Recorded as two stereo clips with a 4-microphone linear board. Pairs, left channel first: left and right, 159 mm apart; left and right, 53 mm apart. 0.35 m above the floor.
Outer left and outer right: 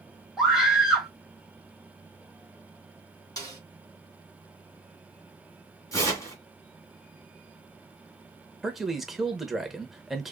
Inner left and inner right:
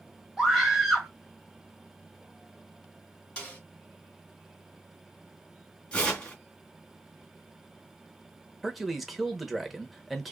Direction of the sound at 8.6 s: Centre (ahead or behind).